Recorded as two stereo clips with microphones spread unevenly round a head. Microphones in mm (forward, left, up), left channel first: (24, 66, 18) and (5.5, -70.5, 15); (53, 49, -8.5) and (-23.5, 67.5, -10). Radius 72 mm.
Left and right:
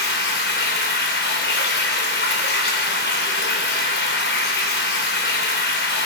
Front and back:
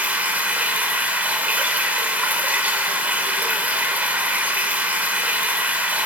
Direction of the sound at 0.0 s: 95° left.